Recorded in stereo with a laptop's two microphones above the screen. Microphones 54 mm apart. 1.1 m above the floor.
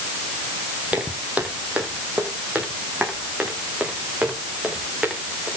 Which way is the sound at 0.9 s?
30° right (ahead or behind).